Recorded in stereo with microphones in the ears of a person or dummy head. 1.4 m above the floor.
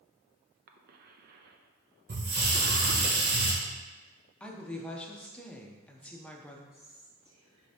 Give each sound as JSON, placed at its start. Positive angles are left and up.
{"t": 0.7, "sound": "a cough", "side_deg": -50, "distance_m": 0.6}
{"t": 2.1, "sound": "a hiss", "side_deg": -50, "distance_m": 1.5}
{"t": 4.4, "sound": "a woman speaking", "side_deg": 5, "distance_m": 0.6}
{"t": 6.7, "sound": "whispering", "side_deg": -30, "distance_m": 1.4}